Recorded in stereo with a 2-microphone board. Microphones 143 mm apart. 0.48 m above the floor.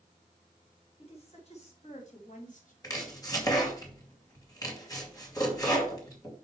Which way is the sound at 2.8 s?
25° left (ahead or behind).